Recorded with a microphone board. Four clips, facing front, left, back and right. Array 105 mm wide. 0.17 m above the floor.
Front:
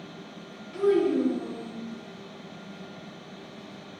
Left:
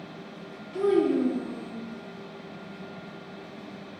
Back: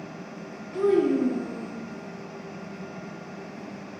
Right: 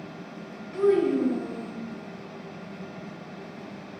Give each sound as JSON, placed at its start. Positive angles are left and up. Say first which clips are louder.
{"t": 0.7, "sound": "a child speaking", "louder": "right 1 dB, back 1 dB", "azimuth_deg": -140, "distance_m": 1.2}